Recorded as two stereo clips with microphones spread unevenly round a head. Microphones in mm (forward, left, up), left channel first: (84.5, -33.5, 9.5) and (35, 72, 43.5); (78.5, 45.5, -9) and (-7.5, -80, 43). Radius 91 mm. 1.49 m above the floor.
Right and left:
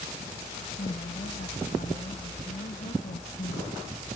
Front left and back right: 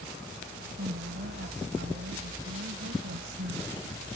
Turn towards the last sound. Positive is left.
turn(degrees=-110)